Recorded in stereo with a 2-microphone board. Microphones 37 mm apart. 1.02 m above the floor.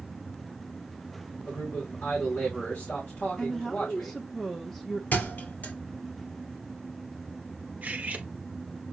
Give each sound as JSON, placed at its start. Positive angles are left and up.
{"t": 1.4, "sound": "a man speaking", "side_deg": 60, "distance_m": 2.0}
{"t": 3.4, "sound": "a woman speaking", "side_deg": 10, "distance_m": 0.9}
{"t": 5.1, "sound": "a thud", "side_deg": 50, "distance_m": 3.0}
{"t": 7.8, "sound": "cutlery clinking", "side_deg": -40, "distance_m": 0.9}